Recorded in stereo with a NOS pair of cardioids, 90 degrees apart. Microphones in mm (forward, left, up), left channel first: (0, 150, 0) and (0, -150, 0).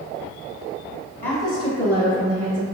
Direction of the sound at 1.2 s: 20° left.